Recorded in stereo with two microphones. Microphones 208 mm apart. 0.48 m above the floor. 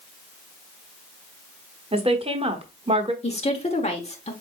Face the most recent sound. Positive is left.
turn(degrees=30)  # may be behind; listen again after turning